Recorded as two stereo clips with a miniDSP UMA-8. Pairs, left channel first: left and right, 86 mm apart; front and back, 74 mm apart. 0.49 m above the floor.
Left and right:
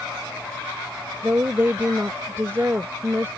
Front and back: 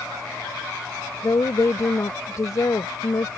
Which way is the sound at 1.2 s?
35° right.